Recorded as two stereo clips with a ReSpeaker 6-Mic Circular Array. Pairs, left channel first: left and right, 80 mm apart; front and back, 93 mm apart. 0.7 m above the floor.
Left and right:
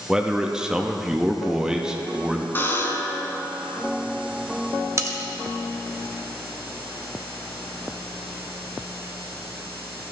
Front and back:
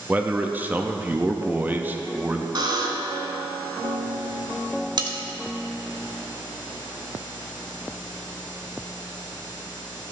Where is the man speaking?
155° right, 0.6 m.